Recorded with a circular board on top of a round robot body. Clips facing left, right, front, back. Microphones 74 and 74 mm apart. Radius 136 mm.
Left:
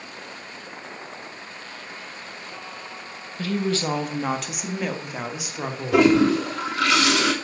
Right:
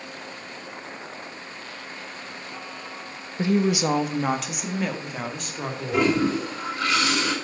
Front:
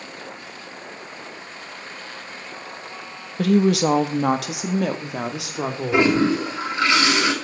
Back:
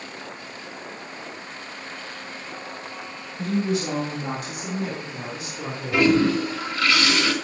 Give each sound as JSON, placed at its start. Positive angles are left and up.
{"t": 3.4, "sound": "a woman speaking", "azimuth_deg": -20, "distance_m": 1.3}
{"t": 5.9, "sound": "a toilet flushing", "azimuth_deg": 70, "distance_m": 2.5}